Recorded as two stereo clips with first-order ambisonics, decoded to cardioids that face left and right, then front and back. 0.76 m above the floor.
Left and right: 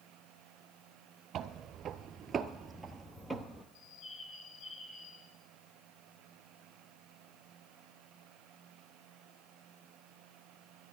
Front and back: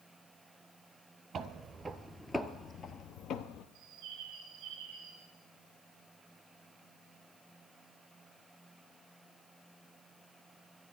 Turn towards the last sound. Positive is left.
turn(degrees=140)